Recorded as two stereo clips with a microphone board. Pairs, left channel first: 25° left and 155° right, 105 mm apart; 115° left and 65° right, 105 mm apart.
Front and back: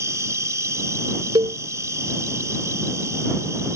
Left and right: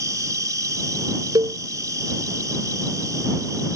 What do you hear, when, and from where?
0.0 s an insect: 110° right
1.4 s a cowbell: 115° right